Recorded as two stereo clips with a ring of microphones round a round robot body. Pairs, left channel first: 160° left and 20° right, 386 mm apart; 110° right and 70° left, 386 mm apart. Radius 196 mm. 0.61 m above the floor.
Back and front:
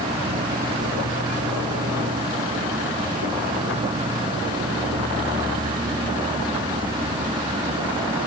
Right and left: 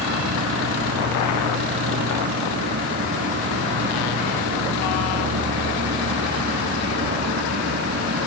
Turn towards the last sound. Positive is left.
turn(degrees=45)